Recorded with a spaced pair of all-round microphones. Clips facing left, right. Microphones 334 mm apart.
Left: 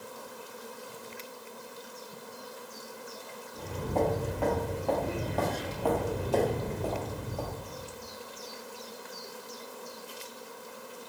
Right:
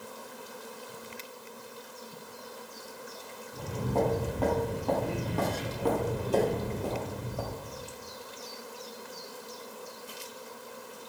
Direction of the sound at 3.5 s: 55° right (ahead or behind).